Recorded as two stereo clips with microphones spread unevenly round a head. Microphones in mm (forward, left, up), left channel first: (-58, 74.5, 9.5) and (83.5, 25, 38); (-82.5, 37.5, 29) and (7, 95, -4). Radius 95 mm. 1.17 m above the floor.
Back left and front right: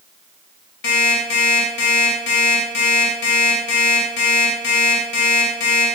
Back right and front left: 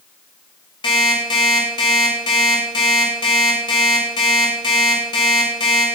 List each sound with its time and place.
0.8 s an alarm clock: 170° left, 7 m